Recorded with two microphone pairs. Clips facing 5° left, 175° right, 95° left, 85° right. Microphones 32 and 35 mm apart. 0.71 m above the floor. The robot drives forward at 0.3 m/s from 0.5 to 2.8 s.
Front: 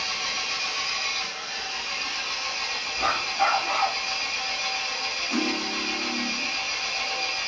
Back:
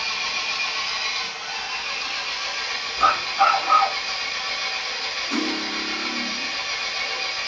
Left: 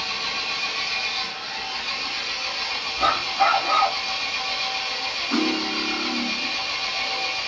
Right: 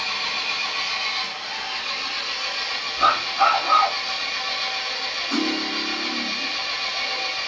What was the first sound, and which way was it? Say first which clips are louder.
An engine running: back 3 dB, right 2 dB; 125° right.